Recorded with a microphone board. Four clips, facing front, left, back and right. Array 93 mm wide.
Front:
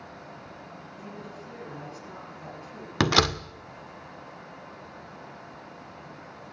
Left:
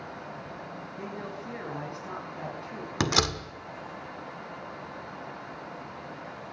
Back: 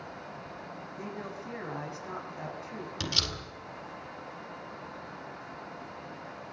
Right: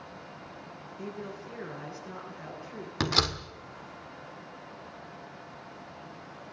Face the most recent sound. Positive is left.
turn(degrees=10)